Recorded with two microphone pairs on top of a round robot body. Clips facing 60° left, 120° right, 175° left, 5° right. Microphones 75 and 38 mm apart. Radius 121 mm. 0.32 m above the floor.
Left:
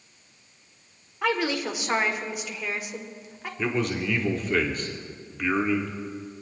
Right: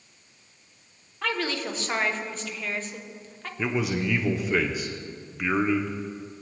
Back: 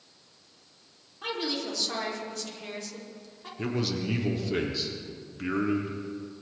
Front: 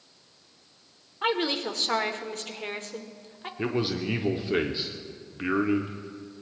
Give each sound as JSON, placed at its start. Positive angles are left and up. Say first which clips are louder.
{"t": 1.2, "sound": "a woman speaking", "louder": "left 3 dB, front 5 dB", "azimuth_deg": 5, "distance_m": 1.7}
{"t": 3.6, "sound": "a man speaking", "louder": "even, front 2 dB", "azimuth_deg": -20, "distance_m": 1.4}